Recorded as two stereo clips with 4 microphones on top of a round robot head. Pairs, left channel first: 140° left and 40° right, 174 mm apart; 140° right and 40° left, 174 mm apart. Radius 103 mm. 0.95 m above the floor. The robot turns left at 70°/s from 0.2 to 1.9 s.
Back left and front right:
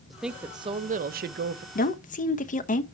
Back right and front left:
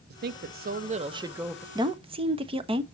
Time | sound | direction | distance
0.1 | a woman speaking | 50° left | 0.6 m
1.8 | a woman speaking | 110° left | 0.9 m